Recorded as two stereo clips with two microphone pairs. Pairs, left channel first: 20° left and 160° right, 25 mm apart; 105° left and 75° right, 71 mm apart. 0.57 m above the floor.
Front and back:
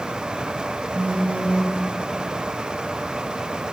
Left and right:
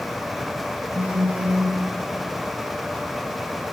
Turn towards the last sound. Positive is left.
turn(degrees=-140)